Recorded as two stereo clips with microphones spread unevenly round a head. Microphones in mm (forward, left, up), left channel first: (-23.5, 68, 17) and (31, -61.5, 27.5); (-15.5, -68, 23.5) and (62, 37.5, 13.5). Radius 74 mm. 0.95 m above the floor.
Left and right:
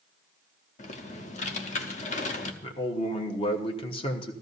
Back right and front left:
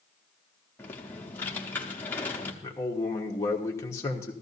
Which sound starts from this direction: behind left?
Typing on a keyboard, at 0.8 s.